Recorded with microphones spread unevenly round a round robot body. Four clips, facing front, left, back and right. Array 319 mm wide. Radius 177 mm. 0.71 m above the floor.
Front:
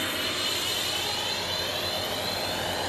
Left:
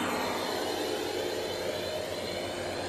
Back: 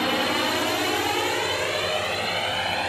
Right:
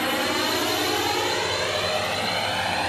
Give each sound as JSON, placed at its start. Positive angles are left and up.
{"t": 0.0, "sound": "a drone", "azimuth_deg": 180}